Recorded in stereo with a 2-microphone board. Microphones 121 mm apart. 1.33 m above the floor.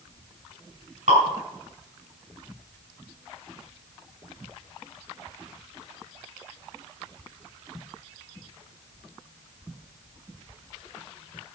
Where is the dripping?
80° right, 6.5 m.